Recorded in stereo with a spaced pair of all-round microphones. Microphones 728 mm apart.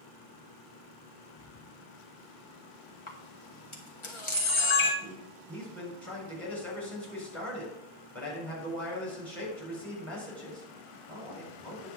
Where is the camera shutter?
40° left (ahead or behind), 1.8 m.